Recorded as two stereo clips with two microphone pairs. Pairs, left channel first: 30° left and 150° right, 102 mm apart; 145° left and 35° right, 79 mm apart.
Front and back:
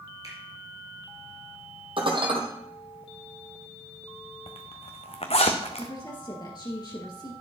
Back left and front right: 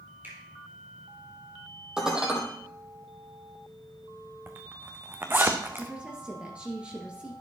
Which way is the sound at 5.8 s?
35° left.